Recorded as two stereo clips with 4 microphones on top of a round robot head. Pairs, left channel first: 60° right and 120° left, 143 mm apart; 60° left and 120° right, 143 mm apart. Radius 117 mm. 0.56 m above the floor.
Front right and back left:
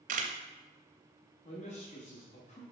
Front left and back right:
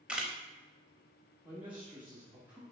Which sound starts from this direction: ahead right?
A man speaking, at 1.4 s.